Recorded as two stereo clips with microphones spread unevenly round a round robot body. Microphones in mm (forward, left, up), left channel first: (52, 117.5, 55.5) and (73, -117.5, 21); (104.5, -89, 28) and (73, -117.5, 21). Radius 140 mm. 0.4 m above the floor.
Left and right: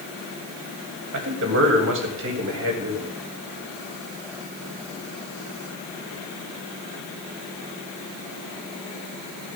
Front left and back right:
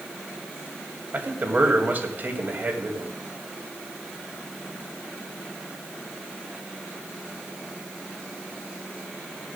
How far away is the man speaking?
About 3 m.